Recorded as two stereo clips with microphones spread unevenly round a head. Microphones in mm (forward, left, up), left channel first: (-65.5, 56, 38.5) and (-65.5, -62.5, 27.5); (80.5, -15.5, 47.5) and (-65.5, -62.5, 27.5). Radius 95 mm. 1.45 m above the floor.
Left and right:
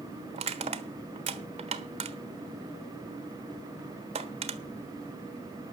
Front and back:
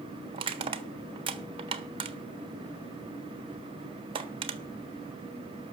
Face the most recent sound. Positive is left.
turn(degrees=-105)